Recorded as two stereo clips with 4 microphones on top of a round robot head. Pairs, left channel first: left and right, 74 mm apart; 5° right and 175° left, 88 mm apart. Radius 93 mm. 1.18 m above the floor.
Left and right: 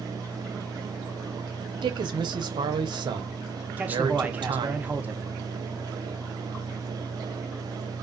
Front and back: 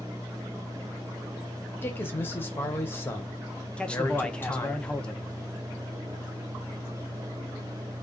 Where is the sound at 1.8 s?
75° right, 0.7 m.